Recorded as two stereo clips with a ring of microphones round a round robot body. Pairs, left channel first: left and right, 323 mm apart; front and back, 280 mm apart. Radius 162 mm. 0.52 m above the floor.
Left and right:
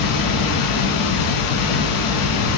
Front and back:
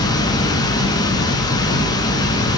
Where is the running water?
75° left, 0.7 m.